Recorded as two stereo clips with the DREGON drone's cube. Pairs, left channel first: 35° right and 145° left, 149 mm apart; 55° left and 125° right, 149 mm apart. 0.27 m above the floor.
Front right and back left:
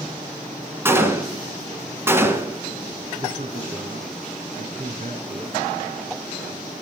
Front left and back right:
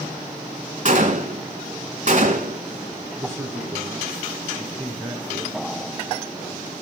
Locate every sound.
0.8 s a gunshot: 145° right, 1.6 m
3.2 s a man speaking: 160° left, 3.5 m